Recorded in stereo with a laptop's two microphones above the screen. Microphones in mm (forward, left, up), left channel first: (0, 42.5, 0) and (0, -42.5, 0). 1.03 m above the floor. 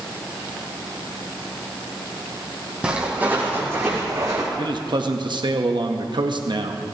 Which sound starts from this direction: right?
A man speaking, at 4.6 s.